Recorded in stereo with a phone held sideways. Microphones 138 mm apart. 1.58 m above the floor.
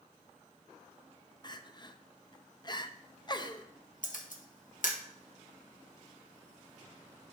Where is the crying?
30° left (ahead or behind), 0.6 m.